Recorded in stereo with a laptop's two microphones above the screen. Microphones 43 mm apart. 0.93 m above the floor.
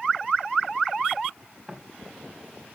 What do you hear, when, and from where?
1.7 s footsteps: centre (ahead or behind), 4.5 m